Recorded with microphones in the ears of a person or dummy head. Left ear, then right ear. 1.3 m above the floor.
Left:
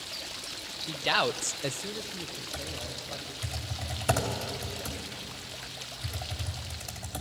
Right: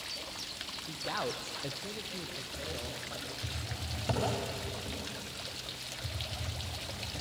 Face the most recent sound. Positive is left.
turn(degrees=35)  # may be behind; listen again after turning